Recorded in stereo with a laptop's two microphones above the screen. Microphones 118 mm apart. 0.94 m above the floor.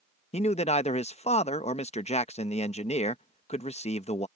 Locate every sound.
0.3 s a man speaking: 65° left (ahead or behind)